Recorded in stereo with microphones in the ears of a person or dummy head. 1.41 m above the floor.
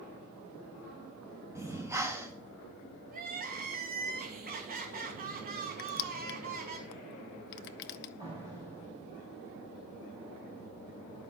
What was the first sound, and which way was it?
Breathing, 20° right (ahead or behind).